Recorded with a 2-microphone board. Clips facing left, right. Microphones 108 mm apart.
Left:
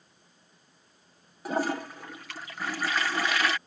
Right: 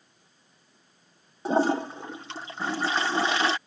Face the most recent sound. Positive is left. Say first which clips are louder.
# right 6 dB
turn(degrees=-30)  # may be behind; listen again after turning